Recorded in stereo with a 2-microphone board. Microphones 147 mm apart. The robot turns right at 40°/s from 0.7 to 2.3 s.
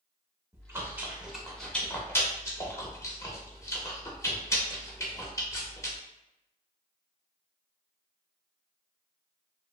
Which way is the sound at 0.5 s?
20° right (ahead or behind).